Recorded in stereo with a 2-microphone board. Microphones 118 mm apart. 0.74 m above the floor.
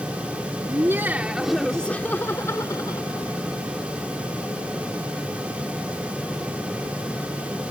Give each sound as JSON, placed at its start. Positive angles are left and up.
{"t": 0.7, "sound": "laughter", "side_deg": -30}